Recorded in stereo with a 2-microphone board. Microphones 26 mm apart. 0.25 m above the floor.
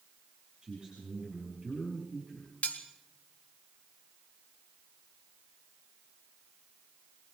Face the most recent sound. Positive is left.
turn(degrees=55)  # may be behind; listen again after turning